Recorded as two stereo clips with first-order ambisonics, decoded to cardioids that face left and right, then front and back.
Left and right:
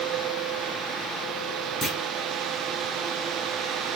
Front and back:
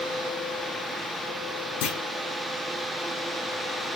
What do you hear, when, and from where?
1.8 s a clunk: straight ahead, 0.6 m